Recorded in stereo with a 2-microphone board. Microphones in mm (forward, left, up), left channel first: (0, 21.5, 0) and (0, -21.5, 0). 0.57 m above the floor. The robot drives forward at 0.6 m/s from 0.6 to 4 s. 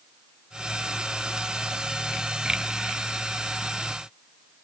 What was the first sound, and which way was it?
Only background noise.